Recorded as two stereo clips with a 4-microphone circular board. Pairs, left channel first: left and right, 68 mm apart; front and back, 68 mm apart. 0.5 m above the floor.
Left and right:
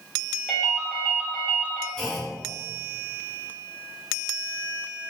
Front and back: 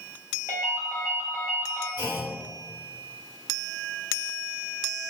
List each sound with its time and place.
0.5 s a ringtone: 165° left, 0.9 m
2.0 s a clunk: 5° left, 1.1 m